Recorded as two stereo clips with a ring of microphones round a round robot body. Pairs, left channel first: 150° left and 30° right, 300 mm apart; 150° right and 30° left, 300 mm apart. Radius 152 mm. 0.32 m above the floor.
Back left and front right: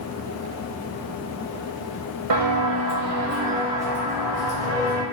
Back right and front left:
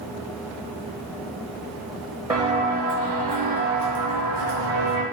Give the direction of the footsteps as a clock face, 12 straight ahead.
2 o'clock.